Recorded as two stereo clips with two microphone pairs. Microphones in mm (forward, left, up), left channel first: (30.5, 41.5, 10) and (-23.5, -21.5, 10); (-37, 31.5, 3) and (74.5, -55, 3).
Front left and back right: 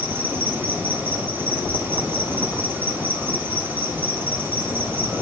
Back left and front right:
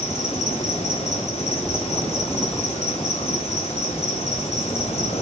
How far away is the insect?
About 1.1 m.